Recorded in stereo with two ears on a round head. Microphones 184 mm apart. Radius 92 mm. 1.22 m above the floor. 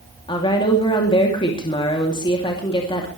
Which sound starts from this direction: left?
A woman speaking, at 0.3 s.